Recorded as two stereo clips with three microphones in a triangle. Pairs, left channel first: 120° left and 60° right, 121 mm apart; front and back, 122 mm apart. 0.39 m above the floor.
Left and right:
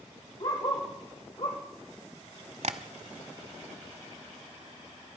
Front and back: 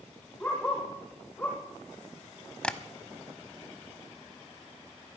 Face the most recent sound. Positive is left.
turn(degrees=-80)